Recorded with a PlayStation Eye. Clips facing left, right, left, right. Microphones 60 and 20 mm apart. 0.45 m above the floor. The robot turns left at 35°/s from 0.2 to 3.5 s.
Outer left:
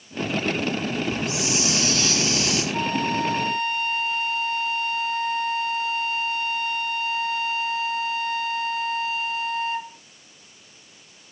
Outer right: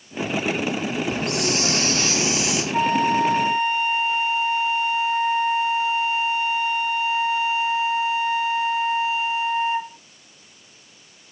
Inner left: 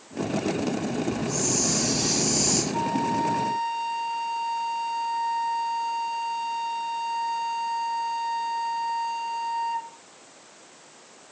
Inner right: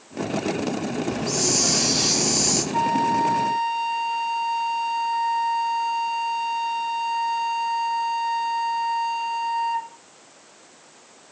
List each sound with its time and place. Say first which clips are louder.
1.1 s a hiss: outer right 2 dB, inner right 6 dB; 120° right, 5.5 m; by 2.6 s 170° right, 5.5 m
2.7 s a flute: outer right 8 dB, inner right 5 dB; 30° right (ahead or behind), 0.6 m; by 10.0 s 15° right (ahead or behind), 0.6 m